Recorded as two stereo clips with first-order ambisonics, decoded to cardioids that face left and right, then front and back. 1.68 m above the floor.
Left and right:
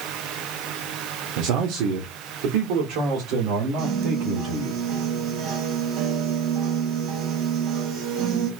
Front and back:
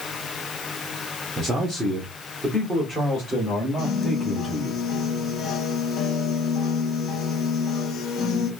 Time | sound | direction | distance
1.4 | a man speaking | 110° right | 0.7 m
3.8 | a piano | 55° right | 0.7 m